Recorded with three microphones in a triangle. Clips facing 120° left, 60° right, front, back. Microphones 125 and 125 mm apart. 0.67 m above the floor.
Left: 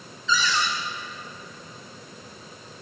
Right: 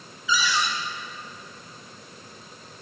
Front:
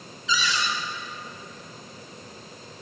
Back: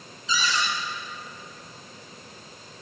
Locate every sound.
0.3 s a cupboard door: 140° right, 1.9 m